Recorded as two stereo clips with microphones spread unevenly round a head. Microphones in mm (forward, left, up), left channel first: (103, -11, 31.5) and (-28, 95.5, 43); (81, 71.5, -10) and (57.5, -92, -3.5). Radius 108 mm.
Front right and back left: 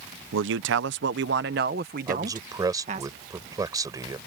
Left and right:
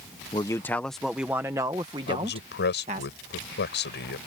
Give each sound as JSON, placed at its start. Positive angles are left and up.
{"t": 0.3, "sound": "a man speaking", "azimuth_deg": 155}
{"t": 2.1, "sound": "a man speaking", "azimuth_deg": 70}